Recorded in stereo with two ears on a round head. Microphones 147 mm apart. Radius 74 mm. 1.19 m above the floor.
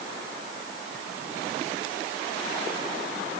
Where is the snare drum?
No snare drum in this recording.